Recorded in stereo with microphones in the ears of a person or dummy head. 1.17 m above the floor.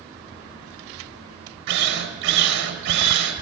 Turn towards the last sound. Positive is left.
turn(degrees=-70)  # may be behind; listen again after turning